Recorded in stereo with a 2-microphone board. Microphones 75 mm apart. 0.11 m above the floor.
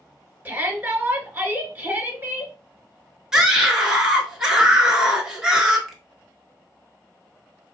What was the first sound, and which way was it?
A shout, 25° right (ahead or behind).